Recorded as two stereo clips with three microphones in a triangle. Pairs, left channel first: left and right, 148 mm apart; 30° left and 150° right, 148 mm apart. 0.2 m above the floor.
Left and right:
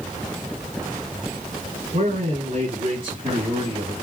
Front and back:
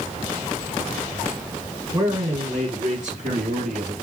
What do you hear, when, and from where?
1.9 s a man speaking: 105° right, 2 m; by 3.9 s 145° right, 3 m